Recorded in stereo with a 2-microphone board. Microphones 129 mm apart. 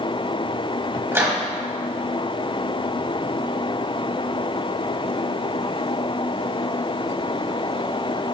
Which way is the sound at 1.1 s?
20° right (ahead or behind).